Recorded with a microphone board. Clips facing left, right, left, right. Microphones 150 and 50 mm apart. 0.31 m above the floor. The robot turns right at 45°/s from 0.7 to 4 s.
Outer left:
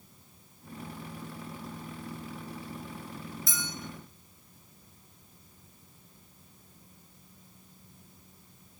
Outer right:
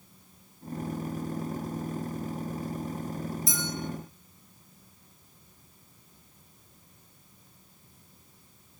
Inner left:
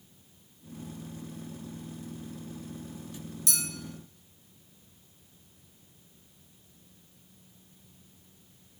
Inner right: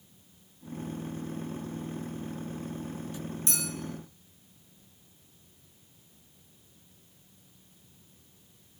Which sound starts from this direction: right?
A clink, at 3.5 s.